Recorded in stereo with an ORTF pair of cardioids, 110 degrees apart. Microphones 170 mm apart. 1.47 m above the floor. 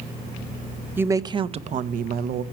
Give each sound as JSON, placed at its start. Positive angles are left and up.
{"t": 1.0, "sound": "a woman speaking", "azimuth_deg": -10, "distance_m": 1.1}